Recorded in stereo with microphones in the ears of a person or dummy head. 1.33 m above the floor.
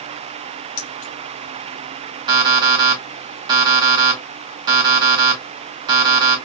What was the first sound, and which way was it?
Keys jangling, 50° left (ahead or behind).